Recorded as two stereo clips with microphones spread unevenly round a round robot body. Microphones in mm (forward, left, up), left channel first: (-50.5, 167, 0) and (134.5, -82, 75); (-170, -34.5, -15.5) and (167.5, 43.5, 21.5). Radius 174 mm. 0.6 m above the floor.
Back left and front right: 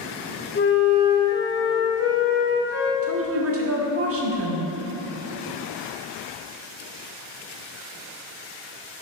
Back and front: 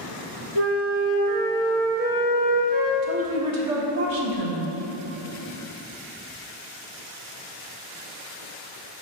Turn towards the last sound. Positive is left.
turn(degrees=-5)